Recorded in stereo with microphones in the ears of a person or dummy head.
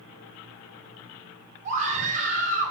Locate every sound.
1.6 s a scream: 35° right (ahead or behind), 5 m